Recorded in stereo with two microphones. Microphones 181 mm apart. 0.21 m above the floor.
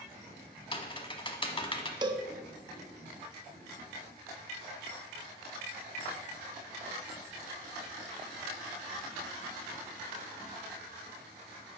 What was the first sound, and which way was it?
Typing on a keyboard, 30° left (ahead or behind).